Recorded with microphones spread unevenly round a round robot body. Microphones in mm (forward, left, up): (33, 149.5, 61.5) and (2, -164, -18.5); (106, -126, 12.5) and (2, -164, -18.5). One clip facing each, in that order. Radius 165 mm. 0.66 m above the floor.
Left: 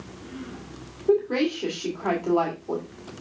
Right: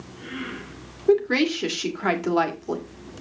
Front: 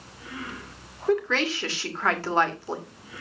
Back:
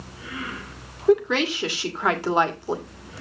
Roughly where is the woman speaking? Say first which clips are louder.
Right 2 dB, back 5 dB; right.